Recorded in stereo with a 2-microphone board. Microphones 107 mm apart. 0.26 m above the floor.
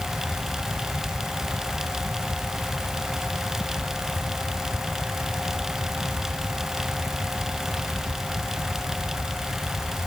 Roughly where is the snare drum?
I don't hear a snare drum.